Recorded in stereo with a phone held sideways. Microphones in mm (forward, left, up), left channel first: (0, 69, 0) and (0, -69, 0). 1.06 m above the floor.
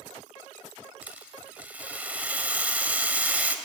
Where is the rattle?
10° right (ahead or behind), 2 m.